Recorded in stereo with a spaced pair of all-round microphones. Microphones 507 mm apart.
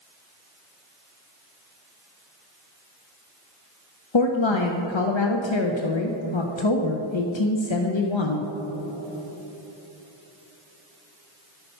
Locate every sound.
4.1 s a woman speaking: 60° left (ahead or behind), 0.7 m